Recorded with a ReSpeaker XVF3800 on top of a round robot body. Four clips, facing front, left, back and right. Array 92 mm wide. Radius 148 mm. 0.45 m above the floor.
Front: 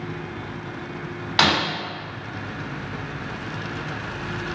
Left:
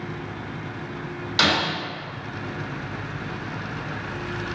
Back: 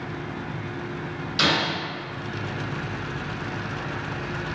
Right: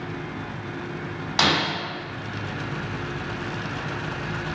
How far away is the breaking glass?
About 2.0 m.